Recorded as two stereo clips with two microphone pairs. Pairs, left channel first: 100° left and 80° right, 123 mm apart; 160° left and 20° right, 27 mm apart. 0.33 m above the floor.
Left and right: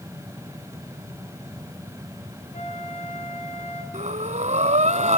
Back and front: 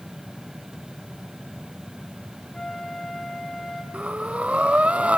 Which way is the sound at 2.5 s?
105° left.